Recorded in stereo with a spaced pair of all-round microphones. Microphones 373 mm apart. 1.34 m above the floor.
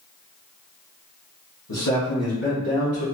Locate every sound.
1.7 s a man speaking: 45° left (ahead or behind), 1.2 m; by 3.0 s 50° left (ahead or behind), 2 m